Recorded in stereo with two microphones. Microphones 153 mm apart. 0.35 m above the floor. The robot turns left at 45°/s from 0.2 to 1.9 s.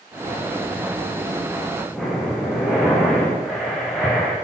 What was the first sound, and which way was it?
Breathing, centre (ahead or behind).